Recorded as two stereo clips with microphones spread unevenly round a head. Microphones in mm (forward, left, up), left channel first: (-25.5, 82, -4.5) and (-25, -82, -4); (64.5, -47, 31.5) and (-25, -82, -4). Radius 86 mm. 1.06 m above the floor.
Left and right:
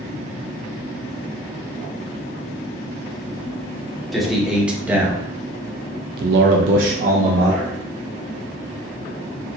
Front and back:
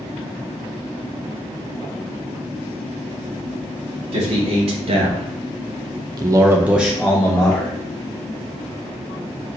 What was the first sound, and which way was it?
A man speaking, straight behind.